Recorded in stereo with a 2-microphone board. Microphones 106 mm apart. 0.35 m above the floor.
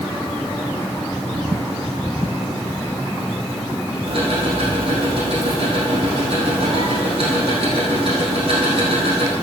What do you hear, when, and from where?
4.1 s ticking: 55° right (ahead or behind), 4 m